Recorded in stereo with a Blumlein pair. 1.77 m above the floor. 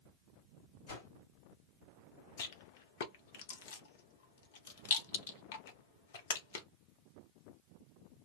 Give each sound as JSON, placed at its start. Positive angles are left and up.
{"t": 0.9, "sound": "a whoosh", "azimuth_deg": 55, "distance_m": 2.0}
{"t": 2.4, "sound": "a rattle", "azimuth_deg": 55, "distance_m": 0.9}